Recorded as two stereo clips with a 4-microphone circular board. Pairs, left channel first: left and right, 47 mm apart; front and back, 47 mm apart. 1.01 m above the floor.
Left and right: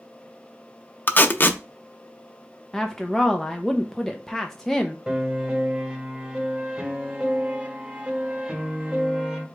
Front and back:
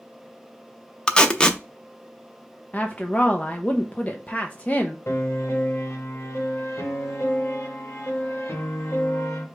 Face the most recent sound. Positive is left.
turn(degrees=-20)